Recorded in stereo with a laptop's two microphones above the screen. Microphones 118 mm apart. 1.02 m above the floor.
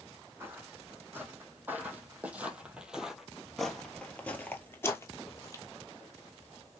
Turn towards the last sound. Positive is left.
turn(degrees=30)  # may be behind; listen again after turning